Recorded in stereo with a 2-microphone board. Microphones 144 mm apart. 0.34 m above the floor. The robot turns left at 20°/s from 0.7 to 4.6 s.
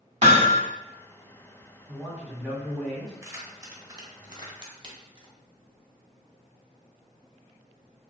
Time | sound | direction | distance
0.2 | hammering | 50° right (ahead or behind) | 0.9 m
1.9 | a man speaking | 15° right (ahead or behind) | 2.0 m
3.2 | keys jangling | 20° right (ahead or behind) | 0.8 m